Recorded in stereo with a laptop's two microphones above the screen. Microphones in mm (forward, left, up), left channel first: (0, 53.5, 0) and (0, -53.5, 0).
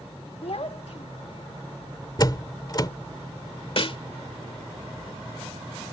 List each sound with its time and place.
0.4 s a child speaking: 60° left (ahead or behind)
2.2 s a door slam: 40° left (ahead or behind)
3.8 s a snare drum: 55° left (ahead or behind)